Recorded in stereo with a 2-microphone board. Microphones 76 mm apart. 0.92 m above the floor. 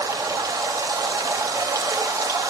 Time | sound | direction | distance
0.0 | running water | 55° right (ahead or behind) | 1.0 m